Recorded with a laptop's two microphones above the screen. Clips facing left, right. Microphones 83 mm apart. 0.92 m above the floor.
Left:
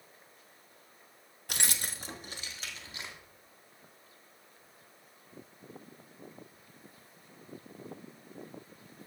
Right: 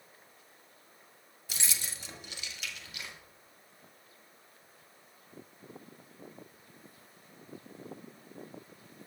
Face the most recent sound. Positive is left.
turn(degrees=30)  # may be behind; listen again after turning